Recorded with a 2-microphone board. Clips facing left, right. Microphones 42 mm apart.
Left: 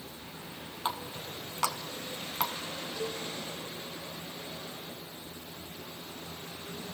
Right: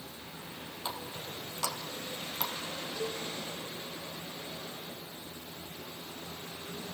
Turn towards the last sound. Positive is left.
turn(degrees=-15)  # may be behind; listen again after turning